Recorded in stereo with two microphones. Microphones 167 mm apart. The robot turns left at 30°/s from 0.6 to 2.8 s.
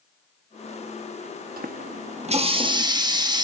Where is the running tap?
120° right, 0.8 m; by 3.4 s 155° right, 0.8 m.